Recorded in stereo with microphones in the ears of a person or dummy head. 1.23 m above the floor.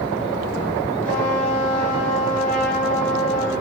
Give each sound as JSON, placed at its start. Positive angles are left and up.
{"t": 1.1, "sound": "a trumpet", "side_deg": 10, "distance_m": 3.0}